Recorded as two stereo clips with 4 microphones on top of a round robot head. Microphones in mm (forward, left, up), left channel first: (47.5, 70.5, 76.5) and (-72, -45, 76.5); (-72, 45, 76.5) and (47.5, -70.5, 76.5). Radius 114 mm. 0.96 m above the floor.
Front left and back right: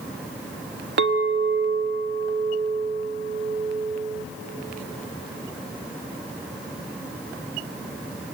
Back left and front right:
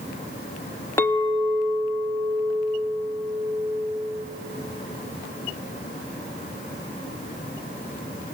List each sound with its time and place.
1.0 s a clink: 150° right, 0.6 m